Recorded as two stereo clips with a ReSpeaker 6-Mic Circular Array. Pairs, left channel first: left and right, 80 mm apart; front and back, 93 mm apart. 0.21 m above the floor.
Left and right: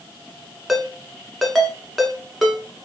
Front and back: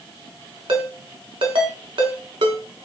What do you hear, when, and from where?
0.7 s a ringtone: straight behind, 0.8 m